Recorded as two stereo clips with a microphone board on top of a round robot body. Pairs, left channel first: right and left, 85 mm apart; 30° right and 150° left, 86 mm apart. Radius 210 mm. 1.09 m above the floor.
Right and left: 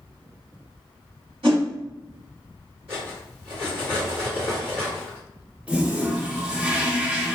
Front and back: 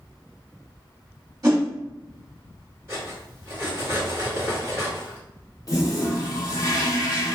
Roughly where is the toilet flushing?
Ahead.